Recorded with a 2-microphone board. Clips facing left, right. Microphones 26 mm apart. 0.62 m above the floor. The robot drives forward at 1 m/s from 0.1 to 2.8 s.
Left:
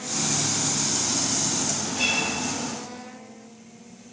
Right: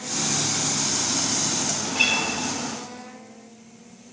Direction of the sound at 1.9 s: 55° right (ahead or behind).